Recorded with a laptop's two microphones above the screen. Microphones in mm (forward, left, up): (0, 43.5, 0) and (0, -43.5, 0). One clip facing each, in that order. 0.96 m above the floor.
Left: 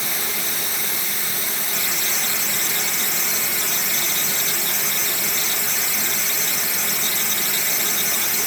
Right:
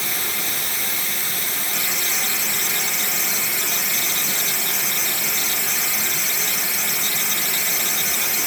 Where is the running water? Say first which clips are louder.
Even; 10° left (ahead or behind), 2.5 m.